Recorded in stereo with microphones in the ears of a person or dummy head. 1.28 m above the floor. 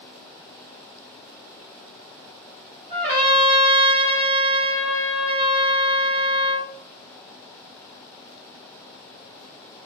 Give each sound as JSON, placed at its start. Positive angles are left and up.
{"t": 2.9, "sound": "a trumpet", "side_deg": -25, "distance_m": 1.6}